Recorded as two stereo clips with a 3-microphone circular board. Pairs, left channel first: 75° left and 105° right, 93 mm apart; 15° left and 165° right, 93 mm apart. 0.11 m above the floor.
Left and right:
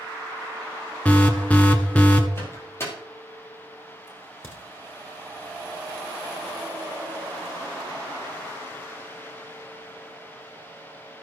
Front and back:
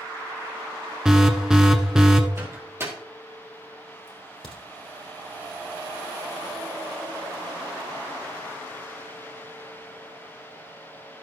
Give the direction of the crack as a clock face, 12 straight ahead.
12 o'clock.